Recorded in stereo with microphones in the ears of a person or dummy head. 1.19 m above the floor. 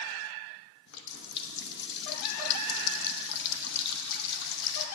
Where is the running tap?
60° left (ahead or behind), 0.8 m.